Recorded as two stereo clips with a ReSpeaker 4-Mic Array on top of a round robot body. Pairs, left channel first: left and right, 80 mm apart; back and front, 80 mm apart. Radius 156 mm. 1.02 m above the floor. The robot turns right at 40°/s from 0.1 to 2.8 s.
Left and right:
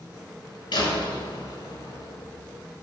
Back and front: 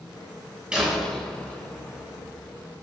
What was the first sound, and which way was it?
A door slam, 80° left.